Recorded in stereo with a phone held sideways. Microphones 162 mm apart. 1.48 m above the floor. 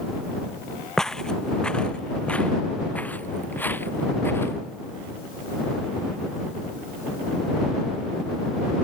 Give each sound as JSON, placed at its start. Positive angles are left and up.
{"t": 1.0, "sound": "footsteps", "side_deg": 5}